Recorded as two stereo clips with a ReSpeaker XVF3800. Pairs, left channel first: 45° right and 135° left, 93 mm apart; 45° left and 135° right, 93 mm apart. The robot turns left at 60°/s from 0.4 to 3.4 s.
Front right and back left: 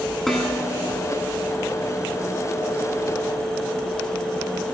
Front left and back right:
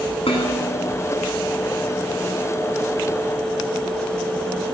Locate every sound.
0.3 s dishes clattering: 40° left, 10 m; by 0.9 s 10° left, 10 m